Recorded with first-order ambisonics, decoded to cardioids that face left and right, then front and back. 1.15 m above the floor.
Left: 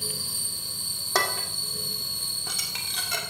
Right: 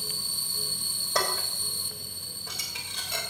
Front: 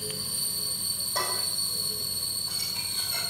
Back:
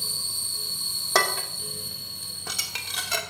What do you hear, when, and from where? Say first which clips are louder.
1.1 s dishes clattering: left 3 dB, back 7 dB; 150° left, 2.0 m